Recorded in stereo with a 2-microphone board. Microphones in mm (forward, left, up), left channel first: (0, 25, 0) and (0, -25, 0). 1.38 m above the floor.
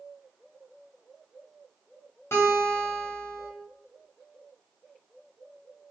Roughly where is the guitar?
Left.